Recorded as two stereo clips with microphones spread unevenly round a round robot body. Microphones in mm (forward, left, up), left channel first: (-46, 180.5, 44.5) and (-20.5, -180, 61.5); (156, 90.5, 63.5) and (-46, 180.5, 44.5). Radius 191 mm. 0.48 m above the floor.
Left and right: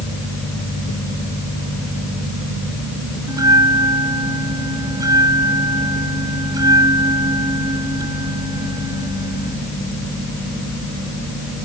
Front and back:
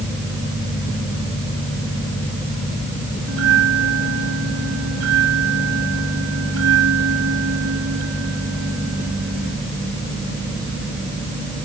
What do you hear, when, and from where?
3.3 s a bell: 165° right